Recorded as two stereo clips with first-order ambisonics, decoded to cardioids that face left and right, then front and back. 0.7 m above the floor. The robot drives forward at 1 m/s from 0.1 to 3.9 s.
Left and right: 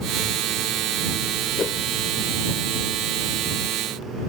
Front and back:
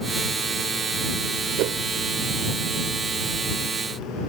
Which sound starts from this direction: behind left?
A whoosh, at 1.6 s.